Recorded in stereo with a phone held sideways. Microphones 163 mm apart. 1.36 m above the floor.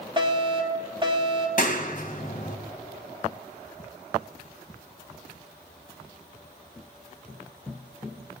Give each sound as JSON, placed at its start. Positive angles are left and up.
{"t": 0.2, "sound": "a fire alarm", "side_deg": -30, "distance_m": 3.5}
{"t": 1.6, "sound": "a clap", "side_deg": 55, "distance_m": 1.4}